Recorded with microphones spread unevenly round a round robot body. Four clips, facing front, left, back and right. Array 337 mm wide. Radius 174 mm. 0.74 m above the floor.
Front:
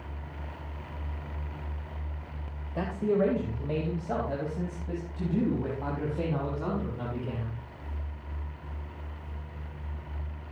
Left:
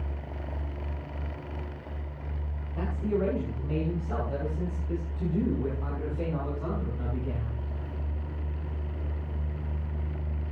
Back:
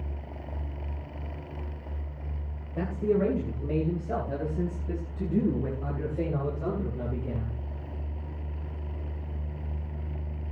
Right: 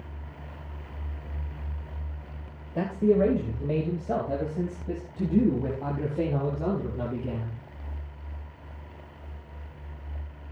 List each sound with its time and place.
2.8 s a man speaking: 80° right, 3 m; by 7.6 s 85° right, 6.5 m